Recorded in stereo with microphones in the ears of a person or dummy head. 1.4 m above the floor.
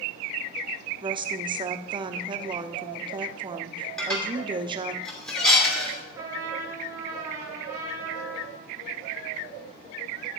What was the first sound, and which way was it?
A woman speaking, 20° right (ahead or behind).